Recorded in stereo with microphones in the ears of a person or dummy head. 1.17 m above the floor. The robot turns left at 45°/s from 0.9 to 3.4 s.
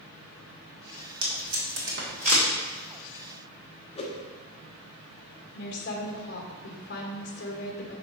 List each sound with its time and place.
1.2 s tape being pulled: 80° right, 1.8 m; by 2.5 s 40° right (ahead or behind), 1.8 m
4.0 s a whoosh: 30° left (ahead or behind), 0.9 m
5.5 s a woman speaking: 55° left (ahead or behind), 1.4 m